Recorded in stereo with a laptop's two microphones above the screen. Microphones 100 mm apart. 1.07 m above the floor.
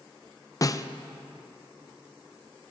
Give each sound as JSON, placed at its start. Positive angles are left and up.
{"t": 0.6, "sound": "a snare drum", "side_deg": 35, "distance_m": 0.5}